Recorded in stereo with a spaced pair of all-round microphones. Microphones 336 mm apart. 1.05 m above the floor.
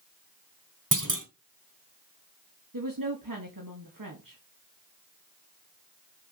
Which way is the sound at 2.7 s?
75° right (ahead or behind).